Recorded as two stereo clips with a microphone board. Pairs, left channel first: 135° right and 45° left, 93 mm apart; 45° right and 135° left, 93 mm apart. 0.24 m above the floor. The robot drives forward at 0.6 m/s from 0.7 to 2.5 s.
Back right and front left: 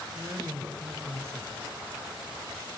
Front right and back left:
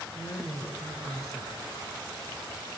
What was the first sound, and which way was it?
A woman speaking, 5° right.